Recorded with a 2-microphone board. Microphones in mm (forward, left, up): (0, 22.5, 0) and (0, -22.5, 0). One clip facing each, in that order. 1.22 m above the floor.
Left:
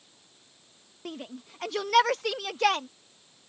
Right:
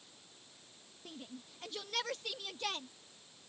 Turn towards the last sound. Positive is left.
turn(degrees=85)